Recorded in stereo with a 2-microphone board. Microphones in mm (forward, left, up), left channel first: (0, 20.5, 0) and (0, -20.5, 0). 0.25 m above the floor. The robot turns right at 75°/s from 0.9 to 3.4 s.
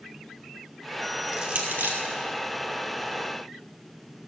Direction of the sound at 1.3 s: 10° right (ahead or behind).